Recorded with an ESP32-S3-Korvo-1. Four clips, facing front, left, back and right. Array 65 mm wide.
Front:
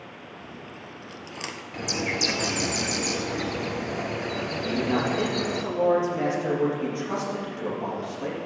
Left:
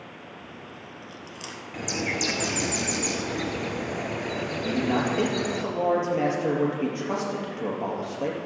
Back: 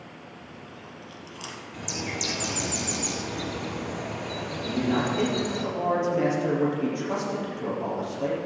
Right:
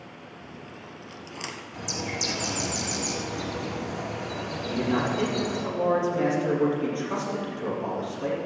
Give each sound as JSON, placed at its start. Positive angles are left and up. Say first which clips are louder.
{"t": 0.4, "sound": "chewing", "louder": "even, front 2 dB", "azimuth_deg": -30, "distance_m": 1.0}
{"t": 1.7, "sound": "a bird", "louder": "left 5 dB, front 5 dB", "azimuth_deg": 45, "distance_m": 0.9}
{"t": 4.6, "sound": "a man speaking", "louder": "left 1 dB, even", "azimuth_deg": 95, "distance_m": 4.0}